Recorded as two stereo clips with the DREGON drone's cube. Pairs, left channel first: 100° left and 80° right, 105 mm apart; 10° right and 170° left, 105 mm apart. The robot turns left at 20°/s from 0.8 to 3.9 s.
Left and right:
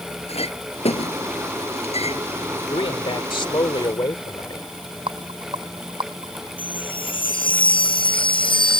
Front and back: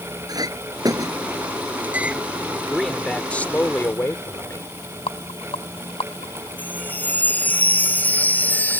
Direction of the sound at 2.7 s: 80° left.